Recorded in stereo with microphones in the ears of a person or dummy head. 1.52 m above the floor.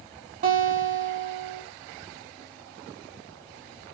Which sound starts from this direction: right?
A guitar, at 0.4 s.